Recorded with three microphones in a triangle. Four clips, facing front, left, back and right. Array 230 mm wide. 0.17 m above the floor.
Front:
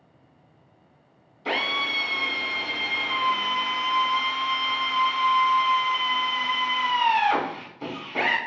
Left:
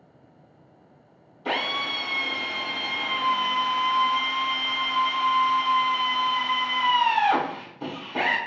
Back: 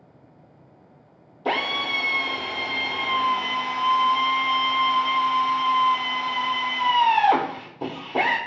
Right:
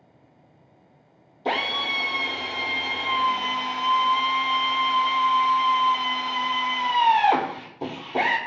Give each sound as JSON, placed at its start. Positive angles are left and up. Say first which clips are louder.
{"t": 1.4, "sound": "a drill", "louder": "right 2 dB, back 2 dB", "azimuth_deg": -140, "distance_m": 0.7}